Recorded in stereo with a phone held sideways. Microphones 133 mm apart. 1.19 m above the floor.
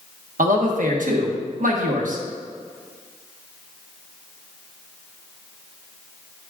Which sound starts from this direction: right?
A man speaking, at 0.4 s.